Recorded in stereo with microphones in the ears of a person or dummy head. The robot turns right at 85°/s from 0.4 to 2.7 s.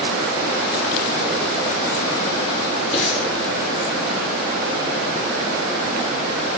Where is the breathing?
20° left (ahead or behind), 6 m.